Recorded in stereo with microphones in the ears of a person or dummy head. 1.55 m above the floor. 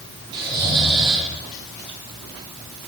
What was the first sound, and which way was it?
Snoring, 25° right (ahead or behind).